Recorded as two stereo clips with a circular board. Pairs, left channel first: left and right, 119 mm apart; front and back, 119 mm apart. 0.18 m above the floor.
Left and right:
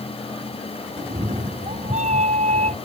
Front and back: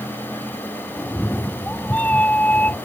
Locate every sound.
1.0 s a cat meowing: 80° right; by 2.8 s 75° right